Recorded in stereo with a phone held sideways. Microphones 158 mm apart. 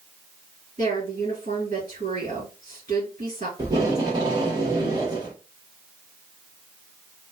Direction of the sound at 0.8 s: 45° right (ahead or behind).